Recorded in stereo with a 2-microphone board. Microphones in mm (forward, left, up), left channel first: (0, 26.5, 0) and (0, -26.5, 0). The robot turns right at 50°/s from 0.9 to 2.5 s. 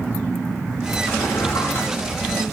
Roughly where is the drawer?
Left.